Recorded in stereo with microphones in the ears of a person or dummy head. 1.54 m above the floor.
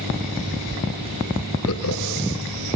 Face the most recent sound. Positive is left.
turn(degrees=75)  # may be behind; listen again after turning